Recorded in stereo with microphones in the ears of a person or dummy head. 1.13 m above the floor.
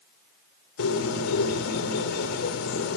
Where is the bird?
85° left, 4.5 m.